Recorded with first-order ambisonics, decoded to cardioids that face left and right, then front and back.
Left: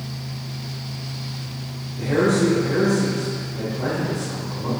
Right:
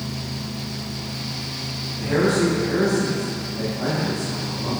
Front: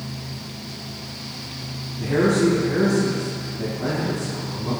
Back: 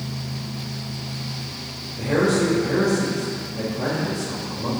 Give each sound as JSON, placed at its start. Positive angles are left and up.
{"t": 2.0, "sound": "a man speaking", "azimuth_deg": 170, "distance_m": 2.0}